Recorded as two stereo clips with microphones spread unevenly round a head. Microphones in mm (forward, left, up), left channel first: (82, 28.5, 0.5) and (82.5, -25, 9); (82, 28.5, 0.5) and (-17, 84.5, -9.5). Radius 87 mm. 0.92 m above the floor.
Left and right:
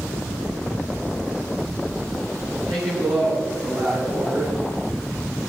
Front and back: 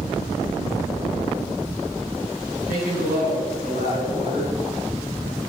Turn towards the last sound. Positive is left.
turn(degrees=-160)